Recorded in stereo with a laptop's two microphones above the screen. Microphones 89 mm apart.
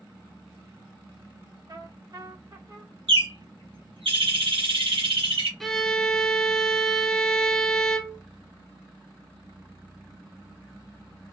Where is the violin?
5° left (ahead or behind), 0.6 m.